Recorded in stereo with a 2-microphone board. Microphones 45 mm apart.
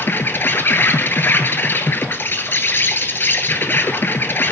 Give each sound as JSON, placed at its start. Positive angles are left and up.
{"t": 0.0, "sound": "an insect", "side_deg": 60, "distance_m": 1.0}